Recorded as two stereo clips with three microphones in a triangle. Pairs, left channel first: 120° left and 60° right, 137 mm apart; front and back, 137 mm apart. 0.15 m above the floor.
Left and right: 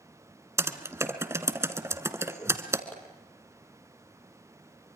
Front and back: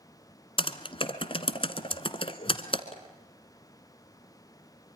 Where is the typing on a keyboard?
Straight ahead, 1.3 m.